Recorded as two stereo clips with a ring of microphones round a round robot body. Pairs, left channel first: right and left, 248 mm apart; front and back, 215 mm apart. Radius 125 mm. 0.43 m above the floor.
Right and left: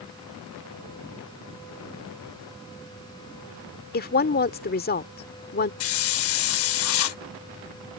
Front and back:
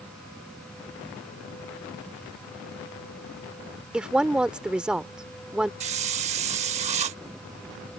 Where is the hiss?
120° right.